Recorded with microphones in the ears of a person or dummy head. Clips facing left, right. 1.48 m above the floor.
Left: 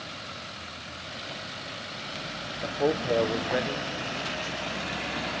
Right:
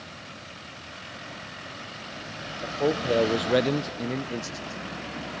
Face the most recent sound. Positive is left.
turn(degrees=-50)  # may be behind; listen again after turning